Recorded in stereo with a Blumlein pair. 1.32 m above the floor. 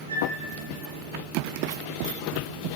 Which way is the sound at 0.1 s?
70° right.